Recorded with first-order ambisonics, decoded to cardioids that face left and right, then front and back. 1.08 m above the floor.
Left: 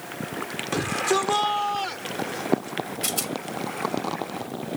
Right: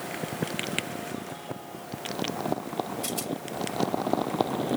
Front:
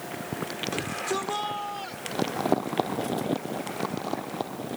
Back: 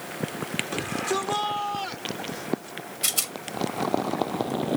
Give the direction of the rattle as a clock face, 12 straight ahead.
7 o'clock.